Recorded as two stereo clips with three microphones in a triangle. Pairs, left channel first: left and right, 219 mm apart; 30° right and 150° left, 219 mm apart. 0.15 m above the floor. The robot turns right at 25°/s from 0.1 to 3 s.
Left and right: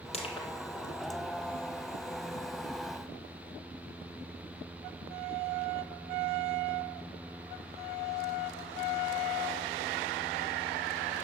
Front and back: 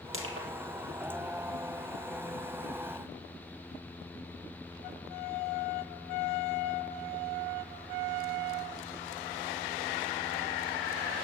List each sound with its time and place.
0.1 s crushing: 150° left, 2.5 m; by 0.5 s 155° left, 2.5 m